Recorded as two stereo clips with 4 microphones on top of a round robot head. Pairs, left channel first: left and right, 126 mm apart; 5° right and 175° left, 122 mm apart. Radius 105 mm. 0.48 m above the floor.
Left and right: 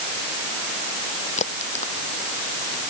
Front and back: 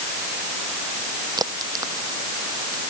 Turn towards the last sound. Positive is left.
turn(degrees=120)